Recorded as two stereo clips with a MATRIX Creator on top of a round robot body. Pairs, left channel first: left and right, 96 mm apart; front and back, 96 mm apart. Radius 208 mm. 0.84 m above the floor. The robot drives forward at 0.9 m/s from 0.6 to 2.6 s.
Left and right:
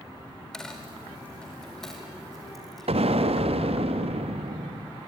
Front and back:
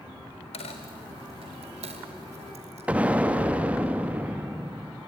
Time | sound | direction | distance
0.5 | a dropped coin | 5° left | 0.7 m
2.9 | an explosion | 105° right | 1.0 m